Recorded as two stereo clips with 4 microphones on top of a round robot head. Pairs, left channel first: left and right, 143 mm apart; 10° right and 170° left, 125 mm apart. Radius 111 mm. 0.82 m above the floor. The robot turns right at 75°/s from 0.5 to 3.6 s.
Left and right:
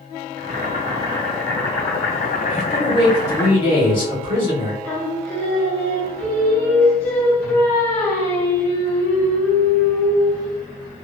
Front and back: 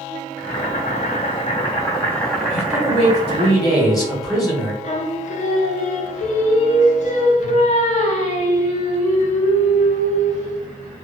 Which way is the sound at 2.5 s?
35° right.